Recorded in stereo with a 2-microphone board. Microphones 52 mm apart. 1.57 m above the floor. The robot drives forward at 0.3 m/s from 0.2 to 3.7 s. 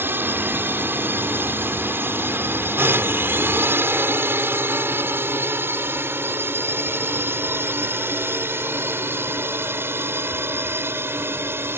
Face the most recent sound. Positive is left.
turn(degrees=-45)  # may be behind; listen again after turning